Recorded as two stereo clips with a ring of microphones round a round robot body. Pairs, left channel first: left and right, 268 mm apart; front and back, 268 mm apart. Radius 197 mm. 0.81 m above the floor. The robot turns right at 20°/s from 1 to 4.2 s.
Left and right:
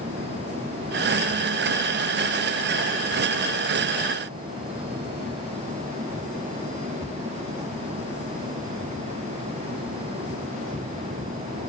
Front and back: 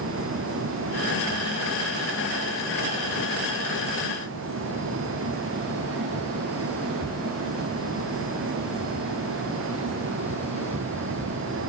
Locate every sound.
Only background noise.